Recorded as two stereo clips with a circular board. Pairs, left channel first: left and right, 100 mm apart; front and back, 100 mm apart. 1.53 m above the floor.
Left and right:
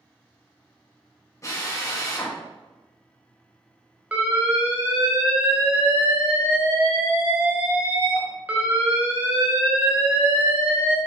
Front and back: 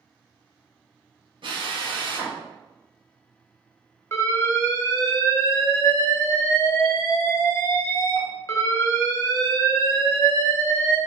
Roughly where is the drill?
Behind left.